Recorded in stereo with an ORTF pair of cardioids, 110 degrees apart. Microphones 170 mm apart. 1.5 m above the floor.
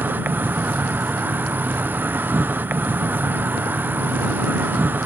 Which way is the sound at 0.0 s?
10° right.